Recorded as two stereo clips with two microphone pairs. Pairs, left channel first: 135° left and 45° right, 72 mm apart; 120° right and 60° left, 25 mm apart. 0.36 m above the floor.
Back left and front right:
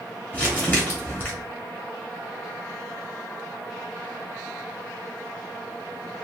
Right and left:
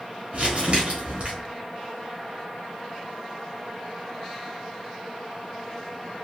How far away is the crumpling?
About 1.3 m.